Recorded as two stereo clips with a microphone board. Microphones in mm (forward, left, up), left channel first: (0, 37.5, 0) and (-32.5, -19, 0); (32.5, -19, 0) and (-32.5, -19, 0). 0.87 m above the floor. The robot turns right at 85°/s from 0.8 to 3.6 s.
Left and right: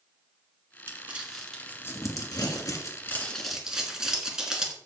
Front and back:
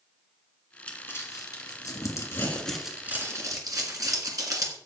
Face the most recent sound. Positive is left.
turn(degrees=160)